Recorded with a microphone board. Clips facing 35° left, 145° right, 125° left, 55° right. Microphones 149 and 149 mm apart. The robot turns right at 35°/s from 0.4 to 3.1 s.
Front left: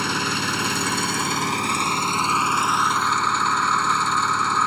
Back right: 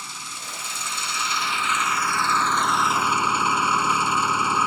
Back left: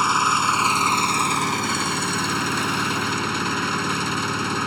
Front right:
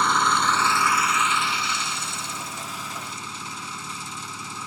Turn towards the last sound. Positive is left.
turn(degrees=135)